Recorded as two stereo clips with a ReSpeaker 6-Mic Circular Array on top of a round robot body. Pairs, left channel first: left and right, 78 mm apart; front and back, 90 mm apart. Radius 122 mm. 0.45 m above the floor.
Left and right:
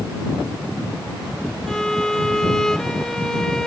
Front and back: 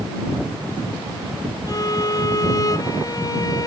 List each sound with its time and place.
1.7 s a violin: 10° left